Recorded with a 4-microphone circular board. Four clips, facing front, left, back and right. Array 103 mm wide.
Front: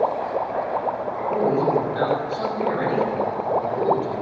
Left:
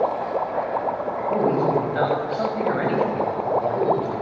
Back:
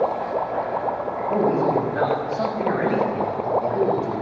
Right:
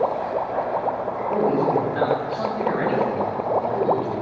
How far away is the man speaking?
About 7.5 m.